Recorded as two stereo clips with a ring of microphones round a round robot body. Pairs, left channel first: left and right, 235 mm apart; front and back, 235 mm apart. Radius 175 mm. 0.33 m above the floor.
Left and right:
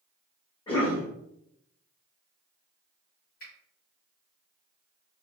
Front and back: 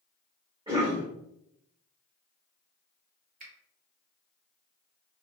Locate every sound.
0.7 s a cough: 140° left, 1.0 m
3.4 s a finger snap: 135° left, 1.1 m